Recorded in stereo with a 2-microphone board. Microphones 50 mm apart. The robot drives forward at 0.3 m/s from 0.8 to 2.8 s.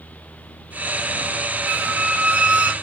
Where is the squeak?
25° right (ahead or behind), 0.6 m; by 2.7 s 35° right (ahead or behind), 0.5 m.